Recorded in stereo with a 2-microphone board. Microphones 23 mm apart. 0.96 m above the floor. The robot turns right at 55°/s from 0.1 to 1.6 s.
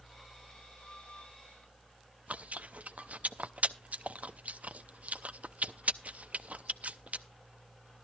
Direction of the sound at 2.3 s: 65° right (ahead or behind).